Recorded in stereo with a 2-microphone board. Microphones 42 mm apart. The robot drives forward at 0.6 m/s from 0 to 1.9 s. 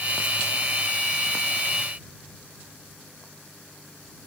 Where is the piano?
I don't hear a piano.